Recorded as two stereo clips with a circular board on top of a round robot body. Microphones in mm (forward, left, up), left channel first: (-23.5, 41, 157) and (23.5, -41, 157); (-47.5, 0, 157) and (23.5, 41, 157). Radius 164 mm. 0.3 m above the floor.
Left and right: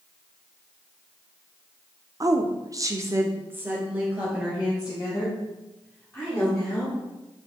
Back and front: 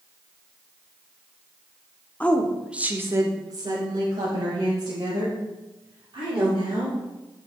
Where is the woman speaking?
85° right, 1.1 m; by 7.0 s 30° left, 4.5 m.